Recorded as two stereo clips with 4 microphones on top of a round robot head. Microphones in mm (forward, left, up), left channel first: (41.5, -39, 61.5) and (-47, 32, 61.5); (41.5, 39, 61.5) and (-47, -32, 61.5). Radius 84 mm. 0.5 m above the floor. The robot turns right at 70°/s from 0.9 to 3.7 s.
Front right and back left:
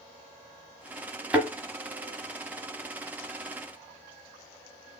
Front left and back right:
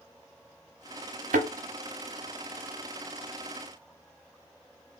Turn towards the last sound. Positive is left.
turn(degrees=25)